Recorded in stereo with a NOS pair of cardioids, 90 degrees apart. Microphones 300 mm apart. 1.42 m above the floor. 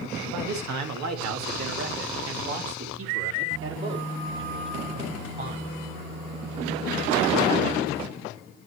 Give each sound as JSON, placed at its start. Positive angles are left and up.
{"t": 0.2, "sound": "a man speaking", "azimuth_deg": -70, "distance_m": 2.0}